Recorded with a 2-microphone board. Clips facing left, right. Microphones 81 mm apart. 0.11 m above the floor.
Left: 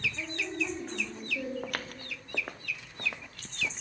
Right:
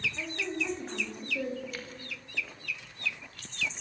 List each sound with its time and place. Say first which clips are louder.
0.2 s a woman speaking: even; 10° right (ahead or behind), 8 m; by 1.5 s 20° right (ahead or behind), 7 m
1.6 s footsteps: left 3 dB; 65° left (ahead or behind), 1.3 m